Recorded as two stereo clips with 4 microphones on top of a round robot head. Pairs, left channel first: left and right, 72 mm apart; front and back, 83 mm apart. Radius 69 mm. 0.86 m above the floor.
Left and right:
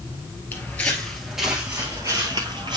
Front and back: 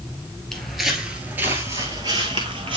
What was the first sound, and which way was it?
Footsteps, 80° left.